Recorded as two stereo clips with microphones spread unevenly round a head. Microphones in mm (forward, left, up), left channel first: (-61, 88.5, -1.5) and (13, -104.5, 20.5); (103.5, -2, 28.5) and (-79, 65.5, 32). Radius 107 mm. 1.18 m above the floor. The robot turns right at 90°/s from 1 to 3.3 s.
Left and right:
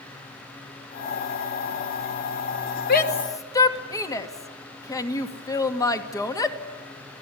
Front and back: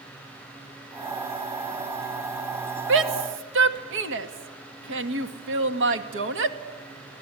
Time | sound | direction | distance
2.9 | a shout | 145° left | 2 m